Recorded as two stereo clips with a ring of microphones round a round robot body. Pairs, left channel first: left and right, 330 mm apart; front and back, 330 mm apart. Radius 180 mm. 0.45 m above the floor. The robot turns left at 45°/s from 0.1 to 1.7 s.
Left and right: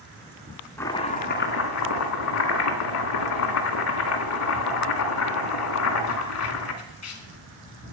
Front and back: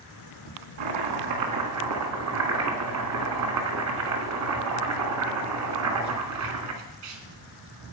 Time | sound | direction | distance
0.8 | chopping | 175° left | 1.8 m